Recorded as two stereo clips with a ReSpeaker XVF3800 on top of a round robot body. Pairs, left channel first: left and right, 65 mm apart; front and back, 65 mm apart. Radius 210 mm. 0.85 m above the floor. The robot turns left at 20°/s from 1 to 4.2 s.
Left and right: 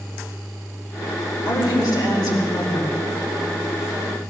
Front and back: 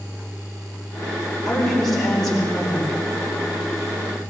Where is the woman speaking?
100° left, 5 m; by 3.0 s 70° left, 5 m.